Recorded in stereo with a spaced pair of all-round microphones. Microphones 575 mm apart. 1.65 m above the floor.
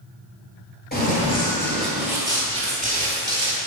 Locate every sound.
0.9 s running footsteps: 15° left (ahead or behind), 1.7 m; by 3.6 s 20° right (ahead or behind), 2.5 m